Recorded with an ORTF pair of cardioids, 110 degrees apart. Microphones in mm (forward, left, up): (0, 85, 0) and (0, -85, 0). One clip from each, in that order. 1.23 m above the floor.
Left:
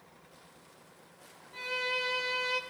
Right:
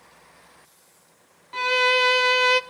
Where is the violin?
65° right, 0.7 m.